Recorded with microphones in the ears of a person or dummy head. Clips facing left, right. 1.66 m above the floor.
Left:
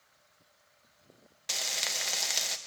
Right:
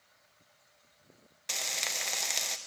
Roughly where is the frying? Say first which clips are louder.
Even; centre.